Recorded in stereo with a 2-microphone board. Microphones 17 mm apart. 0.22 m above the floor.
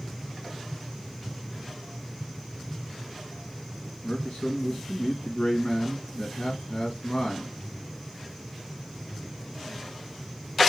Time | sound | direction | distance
4.0 | a man speaking | 60° left (ahead or behind) | 2.5 m